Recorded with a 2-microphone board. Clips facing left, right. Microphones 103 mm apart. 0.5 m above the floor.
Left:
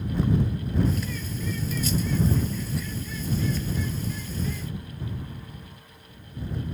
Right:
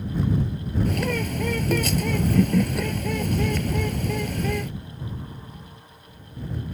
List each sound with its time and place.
0.8 s a bird: 65° right (ahead or behind)